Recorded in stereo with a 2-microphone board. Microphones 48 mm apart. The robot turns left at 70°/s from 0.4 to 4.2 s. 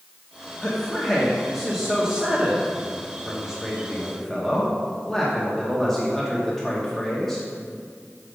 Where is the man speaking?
20° left (ahead or behind), 0.9 m; by 7.5 s 5° left (ahead or behind), 0.9 m.